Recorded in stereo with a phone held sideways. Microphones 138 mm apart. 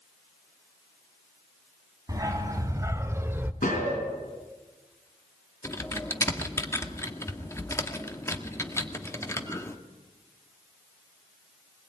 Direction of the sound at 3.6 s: 75° left (ahead or behind).